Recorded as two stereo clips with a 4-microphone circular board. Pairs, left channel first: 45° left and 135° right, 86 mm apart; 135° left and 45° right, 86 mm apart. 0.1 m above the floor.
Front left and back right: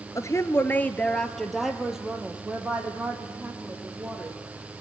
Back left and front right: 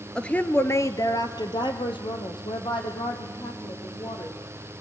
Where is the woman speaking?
60° left, 1.5 m; by 4.8 s 155° left, 6 m.